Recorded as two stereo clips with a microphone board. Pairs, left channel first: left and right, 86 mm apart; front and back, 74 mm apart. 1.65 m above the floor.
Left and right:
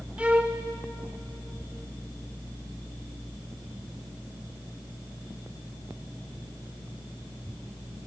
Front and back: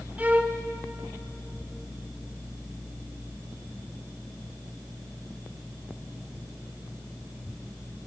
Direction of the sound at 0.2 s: 145° right.